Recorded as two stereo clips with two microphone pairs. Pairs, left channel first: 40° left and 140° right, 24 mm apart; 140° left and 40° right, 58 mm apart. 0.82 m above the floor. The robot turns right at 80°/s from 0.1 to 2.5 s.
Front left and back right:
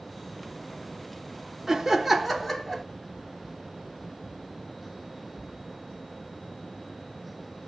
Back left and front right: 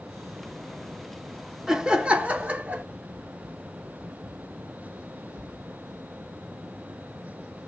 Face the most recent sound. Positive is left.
turn(degrees=-30)